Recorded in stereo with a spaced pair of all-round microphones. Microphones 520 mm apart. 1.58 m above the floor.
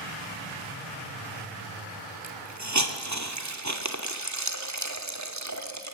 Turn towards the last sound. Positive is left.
turn(degrees=-30)  # may be behind; listen again after turning